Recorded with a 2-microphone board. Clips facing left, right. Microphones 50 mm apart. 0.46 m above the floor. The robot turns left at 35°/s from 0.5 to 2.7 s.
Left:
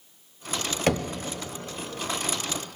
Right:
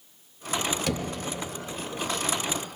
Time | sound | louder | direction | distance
0.9 | knocking | left 5 dB | 45° left (ahead or behind) | 0.6 m